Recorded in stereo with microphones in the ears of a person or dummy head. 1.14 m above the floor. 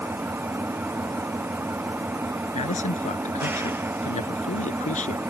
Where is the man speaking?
35° left (ahead or behind).